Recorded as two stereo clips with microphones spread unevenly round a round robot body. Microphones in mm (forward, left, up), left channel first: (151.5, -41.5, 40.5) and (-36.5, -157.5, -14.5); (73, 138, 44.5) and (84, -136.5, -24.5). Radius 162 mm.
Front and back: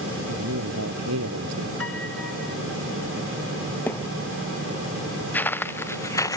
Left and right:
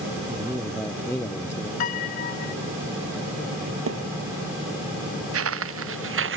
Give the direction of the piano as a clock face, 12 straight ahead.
8 o'clock.